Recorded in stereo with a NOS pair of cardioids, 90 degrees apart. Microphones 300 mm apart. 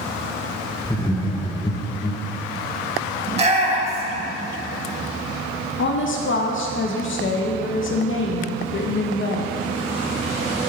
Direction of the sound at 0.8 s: 15° left.